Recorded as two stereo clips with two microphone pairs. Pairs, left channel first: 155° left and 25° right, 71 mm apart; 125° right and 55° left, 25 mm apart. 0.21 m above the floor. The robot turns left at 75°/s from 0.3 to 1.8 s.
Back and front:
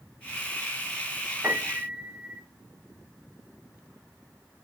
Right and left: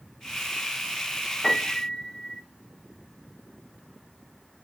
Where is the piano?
60° right, 1.4 m; by 2.4 s 90° right, 1.4 m.